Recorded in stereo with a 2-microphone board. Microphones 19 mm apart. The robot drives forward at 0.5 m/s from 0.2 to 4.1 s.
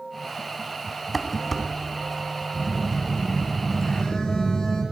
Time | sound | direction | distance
1.1 | dishes clattering | 5° left (ahead or behind) | 0.9 m
2.5 | a phone buzzing | 45° left (ahead or behind) | 3 m